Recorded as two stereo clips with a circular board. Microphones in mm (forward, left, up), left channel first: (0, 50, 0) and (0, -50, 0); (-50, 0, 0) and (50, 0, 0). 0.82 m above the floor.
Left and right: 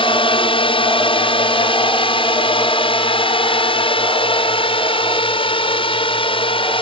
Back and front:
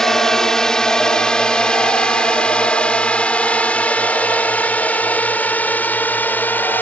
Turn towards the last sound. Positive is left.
turn(degrees=110)